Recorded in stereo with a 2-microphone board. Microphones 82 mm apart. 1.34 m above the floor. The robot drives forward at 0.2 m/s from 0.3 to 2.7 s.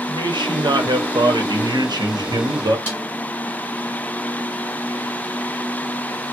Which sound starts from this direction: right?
A man speaking, at 0.1 s.